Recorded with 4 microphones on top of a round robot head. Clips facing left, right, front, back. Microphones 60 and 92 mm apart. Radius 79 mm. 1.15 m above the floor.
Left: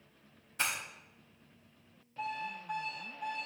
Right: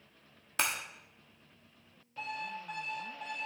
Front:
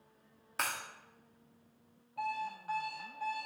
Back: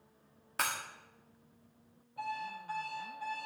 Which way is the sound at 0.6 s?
90° right.